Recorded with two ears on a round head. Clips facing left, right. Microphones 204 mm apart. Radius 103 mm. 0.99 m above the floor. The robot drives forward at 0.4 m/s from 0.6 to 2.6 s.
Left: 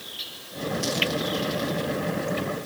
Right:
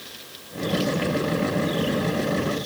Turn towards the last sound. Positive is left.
No sound to turn to.